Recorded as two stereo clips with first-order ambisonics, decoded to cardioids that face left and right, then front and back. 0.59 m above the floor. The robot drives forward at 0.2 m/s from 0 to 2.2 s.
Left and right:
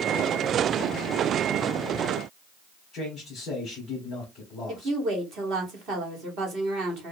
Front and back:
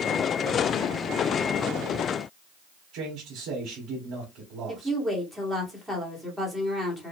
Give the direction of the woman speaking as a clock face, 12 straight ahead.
3 o'clock.